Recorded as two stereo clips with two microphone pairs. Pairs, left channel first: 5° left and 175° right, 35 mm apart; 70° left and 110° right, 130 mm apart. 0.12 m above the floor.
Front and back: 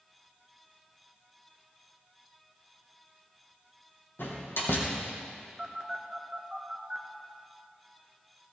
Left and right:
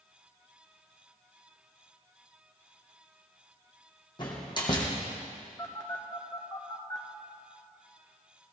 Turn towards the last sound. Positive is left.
turn(degrees=125)